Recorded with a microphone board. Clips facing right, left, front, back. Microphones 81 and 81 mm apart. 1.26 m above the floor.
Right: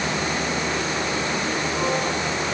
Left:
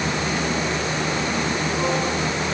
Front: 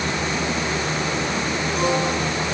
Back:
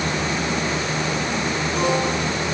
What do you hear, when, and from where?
Only background noise.